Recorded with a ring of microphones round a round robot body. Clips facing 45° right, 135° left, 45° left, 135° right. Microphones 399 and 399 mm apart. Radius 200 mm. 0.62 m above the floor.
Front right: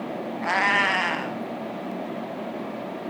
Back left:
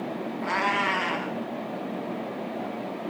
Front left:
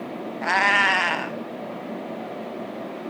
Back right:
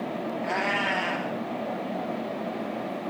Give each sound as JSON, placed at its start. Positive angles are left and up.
{"t": 0.4, "sound": "a cat meowing", "azimuth_deg": 20, "distance_m": 0.6}